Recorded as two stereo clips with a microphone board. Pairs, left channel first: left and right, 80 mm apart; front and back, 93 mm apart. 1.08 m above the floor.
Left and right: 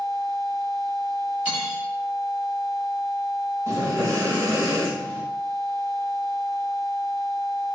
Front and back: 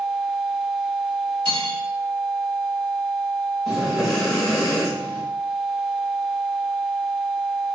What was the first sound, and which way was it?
Cutlery clinking, 165° right.